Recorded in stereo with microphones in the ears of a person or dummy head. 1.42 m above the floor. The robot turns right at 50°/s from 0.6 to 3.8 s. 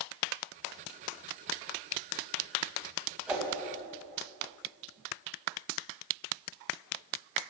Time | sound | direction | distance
3.3 | a whoosh | 5° right (ahead or behind) | 1.5 m